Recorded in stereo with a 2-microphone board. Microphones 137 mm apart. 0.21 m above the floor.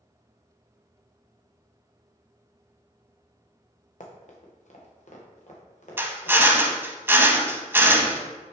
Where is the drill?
15° right (ahead or behind), 0.7 m.